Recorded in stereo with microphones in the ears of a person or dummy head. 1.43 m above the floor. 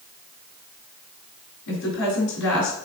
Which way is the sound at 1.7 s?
70° left (ahead or behind).